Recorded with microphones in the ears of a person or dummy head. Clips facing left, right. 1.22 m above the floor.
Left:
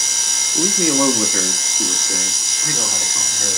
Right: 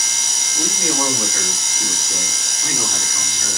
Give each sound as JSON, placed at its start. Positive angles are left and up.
{"t": 0.6, "sound": "a man speaking", "side_deg": 75, "distance_m": 0.8}